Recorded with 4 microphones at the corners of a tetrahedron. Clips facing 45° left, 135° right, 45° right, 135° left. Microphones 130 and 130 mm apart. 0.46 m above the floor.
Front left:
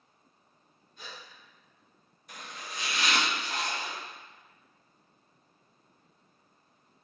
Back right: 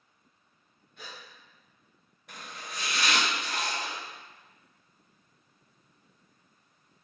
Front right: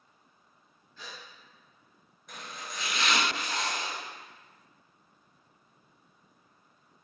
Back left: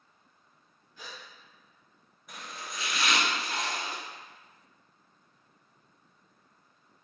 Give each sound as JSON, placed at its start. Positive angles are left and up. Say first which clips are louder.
{"t": 1.0, "sound": "a gasp", "louder": "even, even", "azimuth_deg": -150, "distance_m": 1.0}
{"t": 2.3, "sound": "chopping", "louder": "back right 1 dB, even", "azimuth_deg": -140, "distance_m": 1.3}